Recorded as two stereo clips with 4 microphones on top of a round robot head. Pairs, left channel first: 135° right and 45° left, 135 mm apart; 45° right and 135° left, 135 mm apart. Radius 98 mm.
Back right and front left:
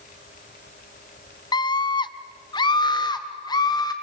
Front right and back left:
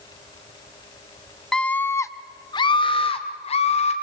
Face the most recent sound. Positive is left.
turn(degrees=-75)